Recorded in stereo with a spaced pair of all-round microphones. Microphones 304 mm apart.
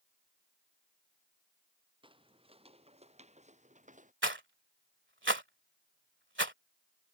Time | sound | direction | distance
2.0 | footsteps | 15° right (ahead or behind) | ?
4.2 | a rattle | 40° right (ahead or behind) | ?